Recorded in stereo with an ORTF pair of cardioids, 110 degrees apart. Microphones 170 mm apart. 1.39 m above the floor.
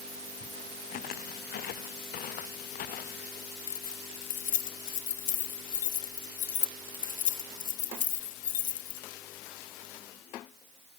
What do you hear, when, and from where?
0.9 s footsteps: 65° left
3.7 s keys jangling: 50° left